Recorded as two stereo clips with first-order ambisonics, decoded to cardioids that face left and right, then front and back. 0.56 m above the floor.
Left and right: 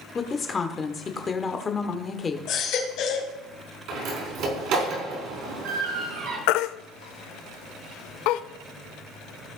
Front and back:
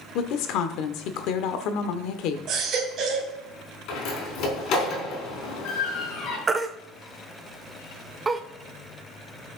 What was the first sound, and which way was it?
A woman speaking, 20° left.